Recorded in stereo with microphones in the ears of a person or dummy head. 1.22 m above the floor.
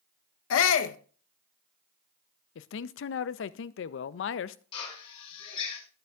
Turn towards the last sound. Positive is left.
turn(degrees=30)  # may be behind; listen again after turning